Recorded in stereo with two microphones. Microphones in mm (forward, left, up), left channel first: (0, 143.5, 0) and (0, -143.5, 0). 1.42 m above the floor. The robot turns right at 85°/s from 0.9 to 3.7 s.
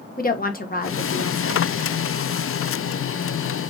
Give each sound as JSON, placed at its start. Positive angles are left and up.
{"t": 0.2, "sound": "a woman speaking", "azimuth_deg": 30, "distance_m": 1.1}